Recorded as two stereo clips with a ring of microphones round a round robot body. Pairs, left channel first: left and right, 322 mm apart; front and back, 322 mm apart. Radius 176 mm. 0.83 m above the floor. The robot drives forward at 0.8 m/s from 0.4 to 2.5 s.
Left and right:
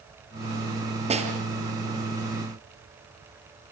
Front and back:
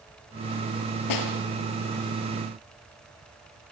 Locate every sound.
1.1 s a snare drum: 20° right, 4.5 m